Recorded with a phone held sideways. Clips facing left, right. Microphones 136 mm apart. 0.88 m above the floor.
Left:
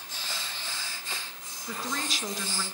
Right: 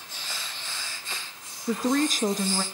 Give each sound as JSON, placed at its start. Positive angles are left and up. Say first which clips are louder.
{"t": 1.7, "sound": "a woman speaking", "louder": "right 11 dB", "side_deg": -45, "distance_m": 1.0}